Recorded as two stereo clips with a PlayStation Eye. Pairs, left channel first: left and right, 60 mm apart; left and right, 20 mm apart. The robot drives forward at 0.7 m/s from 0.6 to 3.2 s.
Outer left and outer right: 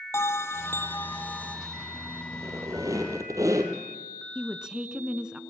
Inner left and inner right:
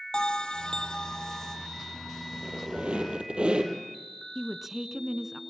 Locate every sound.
0.1 s a bell: 50° left (ahead or behind), 0.7 m; by 1.6 s 25° left (ahead or behind), 1.3 m
2.3 s a squeak: 65° right (ahead or behind), 3 m; by 3.7 s 60° right (ahead or behind), 3 m
4.3 s a woman speaking: 15° right (ahead or behind), 1.1 m